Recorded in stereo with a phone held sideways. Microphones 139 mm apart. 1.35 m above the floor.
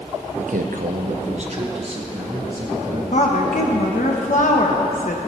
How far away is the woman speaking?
About 1.2 m.